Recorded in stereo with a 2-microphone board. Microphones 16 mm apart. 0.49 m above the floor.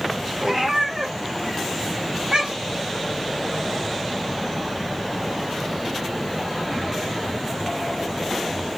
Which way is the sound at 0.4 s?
60° right (ahead or behind).